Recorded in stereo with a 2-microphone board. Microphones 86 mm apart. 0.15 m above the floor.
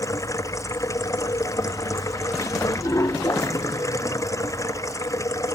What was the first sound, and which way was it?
Running water, 35° left (ahead or behind).